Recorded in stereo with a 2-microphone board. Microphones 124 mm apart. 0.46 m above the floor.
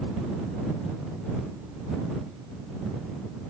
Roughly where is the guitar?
I don't hear a guitar.